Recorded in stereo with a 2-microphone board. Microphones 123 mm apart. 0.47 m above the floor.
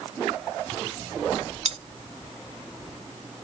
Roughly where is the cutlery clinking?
Right.